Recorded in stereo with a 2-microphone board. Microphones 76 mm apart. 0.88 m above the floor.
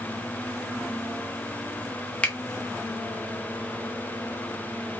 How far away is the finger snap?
About 0.7 m.